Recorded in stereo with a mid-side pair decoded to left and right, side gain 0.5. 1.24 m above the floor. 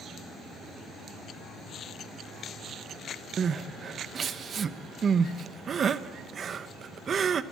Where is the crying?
45° right, 1.1 m.